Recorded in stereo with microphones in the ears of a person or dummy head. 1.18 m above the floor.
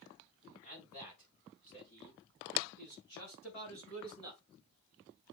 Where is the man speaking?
45° left (ahead or behind), 5.5 m; by 4.4 s 70° left (ahead or behind), 6.5 m.